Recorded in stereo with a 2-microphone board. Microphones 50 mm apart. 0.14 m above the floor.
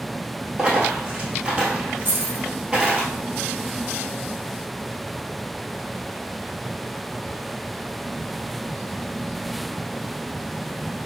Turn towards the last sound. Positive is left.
turn(degrees=-40)  # may be behind; listen again after turning